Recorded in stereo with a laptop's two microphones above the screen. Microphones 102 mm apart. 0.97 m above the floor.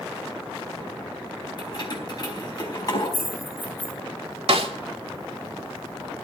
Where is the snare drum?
70° right (ahead or behind), 2 m.